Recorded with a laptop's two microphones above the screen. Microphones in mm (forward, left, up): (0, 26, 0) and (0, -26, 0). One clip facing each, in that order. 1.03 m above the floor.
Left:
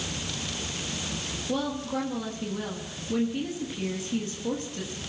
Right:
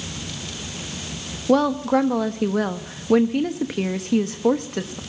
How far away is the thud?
I don't hear a thud.